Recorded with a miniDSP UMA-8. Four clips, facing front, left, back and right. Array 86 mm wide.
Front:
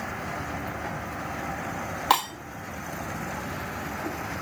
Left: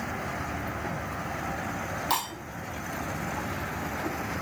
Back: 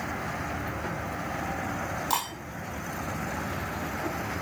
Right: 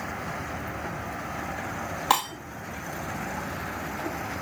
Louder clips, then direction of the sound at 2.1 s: Right 6 dB, front 8 dB; 40° right.